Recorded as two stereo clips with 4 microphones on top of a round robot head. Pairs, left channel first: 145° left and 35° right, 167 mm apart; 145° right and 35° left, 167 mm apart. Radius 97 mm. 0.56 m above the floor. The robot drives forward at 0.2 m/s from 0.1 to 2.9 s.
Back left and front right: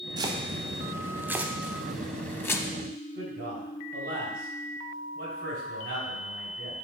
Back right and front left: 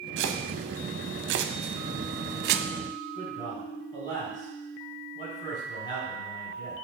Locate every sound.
0.2 s chopping: 35° left, 0.8 m; by 2.7 s 70° left, 0.5 m
3.1 s a man speaking: 75° right, 3.5 m